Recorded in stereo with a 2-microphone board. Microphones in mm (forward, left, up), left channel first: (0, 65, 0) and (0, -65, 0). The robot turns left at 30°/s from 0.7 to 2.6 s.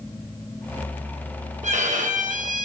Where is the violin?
65° right (ahead or behind), 5 m; by 2.7 s 85° right, 5 m.